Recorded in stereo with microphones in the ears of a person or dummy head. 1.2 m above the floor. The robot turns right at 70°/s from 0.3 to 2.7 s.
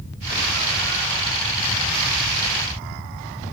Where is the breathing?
I don't hear breathing.